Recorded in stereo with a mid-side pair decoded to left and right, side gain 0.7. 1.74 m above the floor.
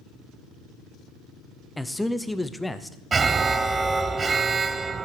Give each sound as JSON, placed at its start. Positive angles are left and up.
{"t": 1.8, "sound": "a man speaking", "azimuth_deg": 5, "distance_m": 0.7}
{"t": 3.1, "sound": "an alarm", "azimuth_deg": -20, "distance_m": 0.6}